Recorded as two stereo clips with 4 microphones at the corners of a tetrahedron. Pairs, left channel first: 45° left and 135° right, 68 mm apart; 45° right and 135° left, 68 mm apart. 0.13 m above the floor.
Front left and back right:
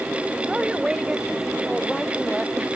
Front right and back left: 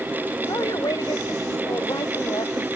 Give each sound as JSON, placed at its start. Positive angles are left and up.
{"t": 0.5, "sound": "a woman speaking", "azimuth_deg": -55}